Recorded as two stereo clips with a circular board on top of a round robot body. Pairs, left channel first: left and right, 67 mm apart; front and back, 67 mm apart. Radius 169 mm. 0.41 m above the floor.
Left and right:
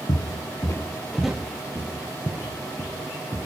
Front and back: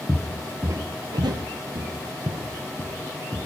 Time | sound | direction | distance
0.1 | footsteps | 90° left | 1.0 m